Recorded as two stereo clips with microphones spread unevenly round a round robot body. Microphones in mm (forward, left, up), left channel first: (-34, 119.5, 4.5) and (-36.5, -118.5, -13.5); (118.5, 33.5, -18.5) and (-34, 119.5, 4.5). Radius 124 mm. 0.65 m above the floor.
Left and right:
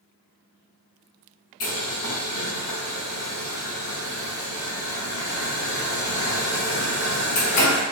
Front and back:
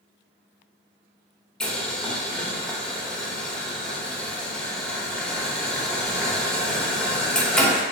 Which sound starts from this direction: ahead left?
Boiling, at 1.6 s.